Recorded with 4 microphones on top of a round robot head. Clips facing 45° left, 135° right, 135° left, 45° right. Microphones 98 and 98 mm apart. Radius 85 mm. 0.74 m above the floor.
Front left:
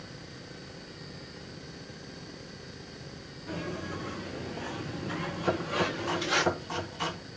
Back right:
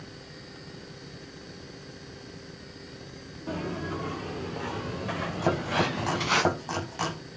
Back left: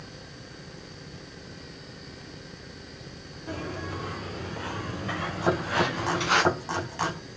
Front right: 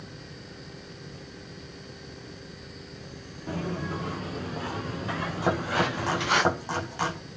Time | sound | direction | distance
3.5 | footsteps | 90° right | 4 m
5.4 | chopping | 120° right | 7.5 m